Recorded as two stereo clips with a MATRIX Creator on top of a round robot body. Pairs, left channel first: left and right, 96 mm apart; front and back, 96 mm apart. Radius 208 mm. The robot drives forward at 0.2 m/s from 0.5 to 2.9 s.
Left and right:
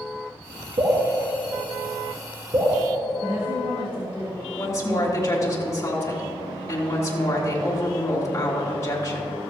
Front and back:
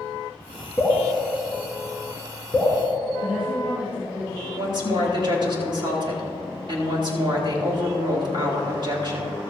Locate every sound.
0.8 s dripping: 90° right, 3.5 m; by 2.8 s 95° right, 3.5 m
3.2 s a woman speaking: 105° right, 3 m
4.6 s a woman speaking: 145° left, 3 m